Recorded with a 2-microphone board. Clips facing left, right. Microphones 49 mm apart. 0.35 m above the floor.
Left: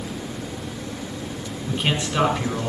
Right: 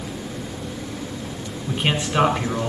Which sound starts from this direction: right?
A man speaking, at 1.7 s.